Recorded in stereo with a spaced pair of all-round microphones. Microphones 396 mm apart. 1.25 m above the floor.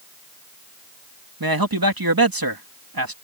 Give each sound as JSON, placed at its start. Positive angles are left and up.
{"t": 1.4, "sound": "a man speaking", "side_deg": -60}